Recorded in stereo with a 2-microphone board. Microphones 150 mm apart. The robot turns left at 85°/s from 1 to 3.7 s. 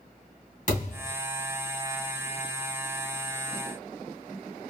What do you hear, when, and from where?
0.7 s a thud: 50° left (ahead or behind), 2.5 m; by 1.1 s 65° left (ahead or behind), 2.5 m